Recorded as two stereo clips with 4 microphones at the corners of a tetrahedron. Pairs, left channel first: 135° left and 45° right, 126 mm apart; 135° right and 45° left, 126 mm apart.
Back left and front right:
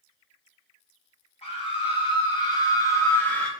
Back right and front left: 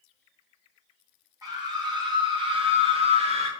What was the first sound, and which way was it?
A scream, 105° left.